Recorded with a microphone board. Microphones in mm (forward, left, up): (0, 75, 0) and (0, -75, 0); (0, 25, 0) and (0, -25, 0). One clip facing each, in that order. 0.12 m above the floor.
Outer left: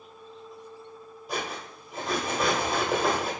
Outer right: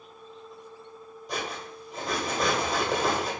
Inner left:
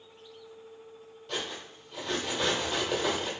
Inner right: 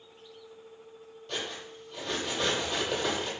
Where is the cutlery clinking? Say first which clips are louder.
Outer left 1 dB, inner left 1 dB; 5° left (ahead or behind), 1.5 m.